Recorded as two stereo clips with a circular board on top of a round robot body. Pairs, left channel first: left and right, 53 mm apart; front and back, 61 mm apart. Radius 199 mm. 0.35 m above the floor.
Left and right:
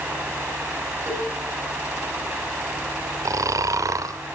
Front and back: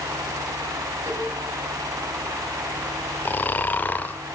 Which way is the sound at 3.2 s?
65° right.